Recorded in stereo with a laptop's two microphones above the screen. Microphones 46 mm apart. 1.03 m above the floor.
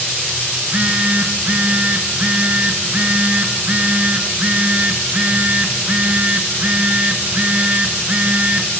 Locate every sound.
0.6 s a phone buzzing: 30° right (ahead or behind), 1.0 m